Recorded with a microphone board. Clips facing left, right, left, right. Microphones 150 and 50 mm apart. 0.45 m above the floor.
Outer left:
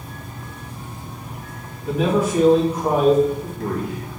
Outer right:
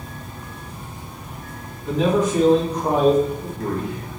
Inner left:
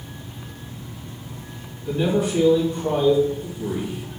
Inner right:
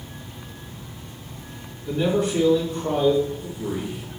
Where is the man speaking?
10° left (ahead or behind), 2 m.